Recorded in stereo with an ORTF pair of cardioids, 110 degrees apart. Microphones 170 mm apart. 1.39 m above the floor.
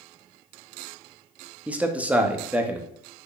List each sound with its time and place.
1.7 s a man speaking: 10° right, 0.5 m